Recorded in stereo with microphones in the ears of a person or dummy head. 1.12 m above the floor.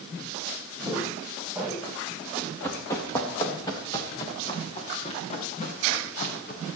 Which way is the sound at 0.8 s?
Centre (ahead or behind).